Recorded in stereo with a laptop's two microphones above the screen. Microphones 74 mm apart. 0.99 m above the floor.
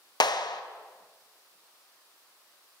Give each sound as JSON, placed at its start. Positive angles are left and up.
{"t": 0.2, "sound": "a clap", "side_deg": 70, "distance_m": 0.5}